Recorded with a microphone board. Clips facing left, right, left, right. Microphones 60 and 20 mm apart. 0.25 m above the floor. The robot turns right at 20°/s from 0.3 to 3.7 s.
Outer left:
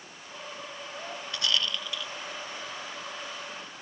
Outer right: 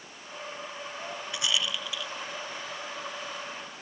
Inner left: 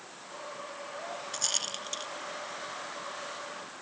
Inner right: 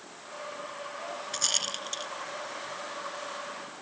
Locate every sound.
1.3 s a rattle: 15° right (ahead or behind); by 2.1 s centre (ahead or behind)